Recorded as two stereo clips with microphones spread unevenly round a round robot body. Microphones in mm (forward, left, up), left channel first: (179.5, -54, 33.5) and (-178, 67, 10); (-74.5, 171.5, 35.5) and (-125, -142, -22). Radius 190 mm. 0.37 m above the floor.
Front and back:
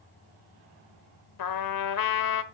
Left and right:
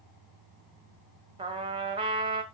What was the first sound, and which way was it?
A trumpet, 35° right.